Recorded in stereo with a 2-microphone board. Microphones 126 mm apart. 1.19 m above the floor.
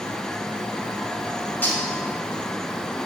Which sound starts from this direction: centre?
Cutlery clinking, at 1.6 s.